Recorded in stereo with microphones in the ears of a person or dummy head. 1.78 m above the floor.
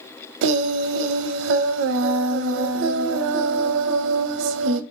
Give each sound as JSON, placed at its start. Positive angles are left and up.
{"t": 0.4, "sound": "singing", "side_deg": -75, "distance_m": 0.6}